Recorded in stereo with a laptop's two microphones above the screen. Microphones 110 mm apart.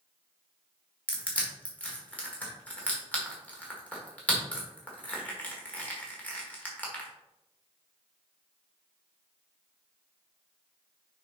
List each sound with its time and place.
1.1 s crushing: 15° left (ahead or behind), 1.8 m